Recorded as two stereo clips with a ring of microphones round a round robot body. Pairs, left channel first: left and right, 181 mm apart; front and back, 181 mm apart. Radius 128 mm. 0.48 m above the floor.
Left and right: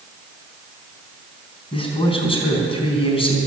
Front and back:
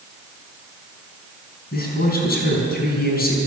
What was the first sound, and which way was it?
A man speaking, 30° left.